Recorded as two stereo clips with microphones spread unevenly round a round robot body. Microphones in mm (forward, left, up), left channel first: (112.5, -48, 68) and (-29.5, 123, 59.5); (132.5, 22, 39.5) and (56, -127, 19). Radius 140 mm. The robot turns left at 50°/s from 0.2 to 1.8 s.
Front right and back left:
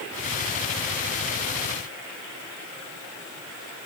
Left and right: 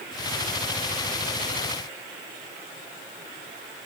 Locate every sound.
Only background noise.